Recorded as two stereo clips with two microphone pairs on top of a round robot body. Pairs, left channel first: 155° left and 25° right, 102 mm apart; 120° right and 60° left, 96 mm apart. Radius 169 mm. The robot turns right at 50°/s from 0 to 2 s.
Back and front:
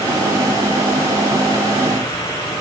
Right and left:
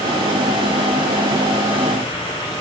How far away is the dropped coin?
No dropped coin in this recording.